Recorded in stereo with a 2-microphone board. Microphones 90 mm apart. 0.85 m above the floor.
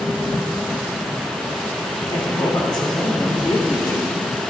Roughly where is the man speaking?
Left.